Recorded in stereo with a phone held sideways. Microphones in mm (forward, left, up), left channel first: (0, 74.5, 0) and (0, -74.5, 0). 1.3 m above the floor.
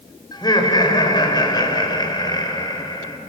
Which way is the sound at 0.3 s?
30° left (ahead or behind).